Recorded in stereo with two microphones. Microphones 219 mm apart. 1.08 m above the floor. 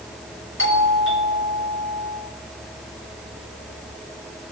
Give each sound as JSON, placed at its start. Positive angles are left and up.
{"t": 0.6, "sound": "a doorbell", "side_deg": 65, "distance_m": 6.0}